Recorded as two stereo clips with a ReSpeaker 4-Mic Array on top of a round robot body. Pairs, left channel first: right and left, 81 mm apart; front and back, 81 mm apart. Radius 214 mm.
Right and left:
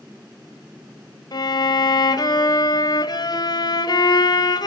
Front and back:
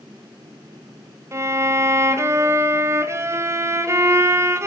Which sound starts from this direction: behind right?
A violin, at 1.3 s.